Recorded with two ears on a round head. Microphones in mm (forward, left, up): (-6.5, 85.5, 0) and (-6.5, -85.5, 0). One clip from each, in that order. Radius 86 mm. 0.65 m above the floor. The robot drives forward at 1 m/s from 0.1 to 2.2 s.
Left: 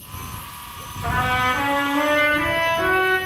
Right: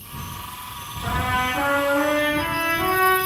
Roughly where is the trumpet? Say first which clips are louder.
Left 3 dB; centre.